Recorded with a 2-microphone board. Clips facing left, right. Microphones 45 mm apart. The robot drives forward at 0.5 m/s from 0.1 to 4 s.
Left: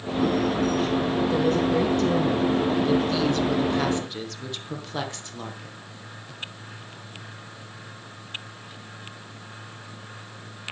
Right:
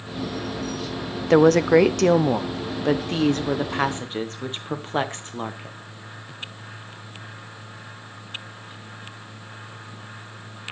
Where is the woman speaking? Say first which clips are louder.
Right 11 dB; 75° right (ahead or behind), 0.8 m; by 5.8 s 35° right (ahead or behind), 1.5 m.